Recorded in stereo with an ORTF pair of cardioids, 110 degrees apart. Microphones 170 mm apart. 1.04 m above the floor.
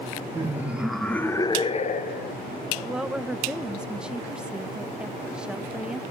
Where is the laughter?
15° right, 0.9 m; by 2.4 s 70° left, 0.7 m.